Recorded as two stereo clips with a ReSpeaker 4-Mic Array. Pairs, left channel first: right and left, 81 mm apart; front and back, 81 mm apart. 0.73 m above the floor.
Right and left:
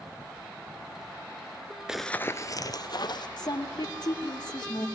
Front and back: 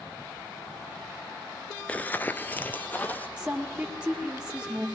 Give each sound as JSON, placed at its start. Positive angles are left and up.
{"t": 1.9, "sound": "running footsteps", "azimuth_deg": 30, "distance_m": 0.7}
{"t": 3.4, "sound": "a woman speaking", "azimuth_deg": -105, "distance_m": 2.5}